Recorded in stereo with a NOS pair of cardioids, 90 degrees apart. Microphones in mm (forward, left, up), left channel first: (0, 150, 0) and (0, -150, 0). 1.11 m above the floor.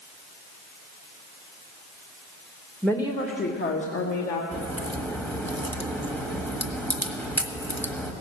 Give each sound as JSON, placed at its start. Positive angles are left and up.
{"t": 2.8, "sound": "a woman speaking", "azimuth_deg": 0, "distance_m": 1.1}
{"t": 4.5, "sound": "a crack", "azimuth_deg": 5, "distance_m": 1.3}